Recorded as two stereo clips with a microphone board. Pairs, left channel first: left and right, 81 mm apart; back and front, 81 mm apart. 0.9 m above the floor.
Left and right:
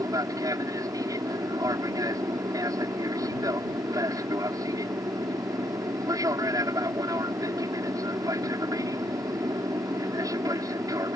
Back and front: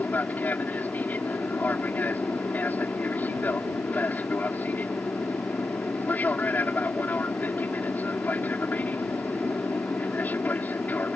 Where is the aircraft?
115° right.